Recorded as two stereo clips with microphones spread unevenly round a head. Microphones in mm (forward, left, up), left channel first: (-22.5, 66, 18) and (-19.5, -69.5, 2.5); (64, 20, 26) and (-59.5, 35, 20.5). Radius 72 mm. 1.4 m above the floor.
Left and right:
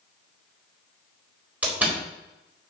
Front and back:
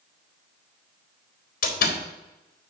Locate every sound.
1.6 s a door slam: 5° right, 4 m